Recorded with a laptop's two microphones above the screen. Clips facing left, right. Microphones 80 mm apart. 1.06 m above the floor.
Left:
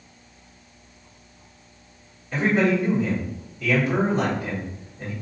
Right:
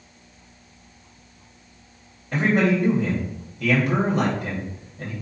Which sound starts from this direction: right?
A man speaking, at 2.3 s.